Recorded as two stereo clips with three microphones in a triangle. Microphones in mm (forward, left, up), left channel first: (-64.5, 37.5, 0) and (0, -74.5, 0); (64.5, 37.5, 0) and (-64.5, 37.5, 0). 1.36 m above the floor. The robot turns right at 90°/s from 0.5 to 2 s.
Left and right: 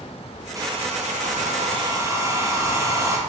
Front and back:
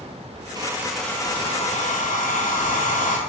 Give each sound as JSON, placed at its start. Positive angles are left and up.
{"t": 0.6, "sound": "a hair dryer", "azimuth_deg": -125, "distance_m": 0.8}